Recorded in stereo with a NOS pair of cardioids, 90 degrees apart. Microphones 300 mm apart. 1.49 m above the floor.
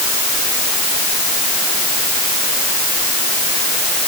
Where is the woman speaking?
I don't hear a woman speaking.